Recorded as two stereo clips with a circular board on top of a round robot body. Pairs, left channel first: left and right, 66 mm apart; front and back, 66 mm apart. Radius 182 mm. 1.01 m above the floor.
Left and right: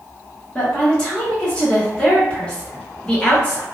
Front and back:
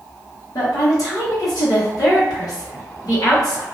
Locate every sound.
0.6 s a woman speaking: 15° left, 1.6 m